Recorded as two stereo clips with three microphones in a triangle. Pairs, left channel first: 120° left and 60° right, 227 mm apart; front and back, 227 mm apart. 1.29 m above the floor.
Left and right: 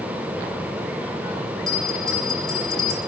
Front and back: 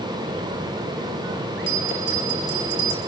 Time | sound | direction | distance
1.7 | a bell | 35° left | 5 m